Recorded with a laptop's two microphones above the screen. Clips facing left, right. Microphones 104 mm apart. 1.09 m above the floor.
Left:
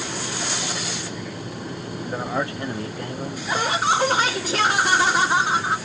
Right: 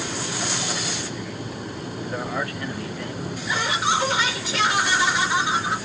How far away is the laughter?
About 2 m.